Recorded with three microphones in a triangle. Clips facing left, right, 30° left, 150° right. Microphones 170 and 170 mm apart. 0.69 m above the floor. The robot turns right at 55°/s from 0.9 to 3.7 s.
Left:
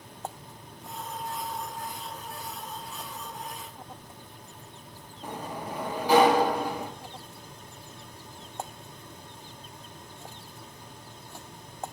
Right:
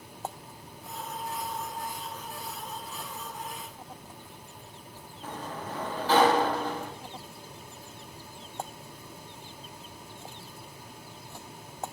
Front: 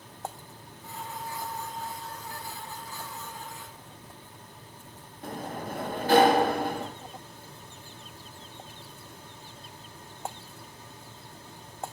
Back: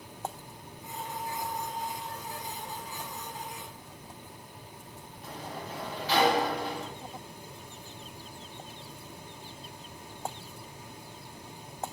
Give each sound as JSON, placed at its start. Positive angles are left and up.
{"t": 5.2, "sound": "a sliding door", "azimuth_deg": 15, "distance_m": 0.6}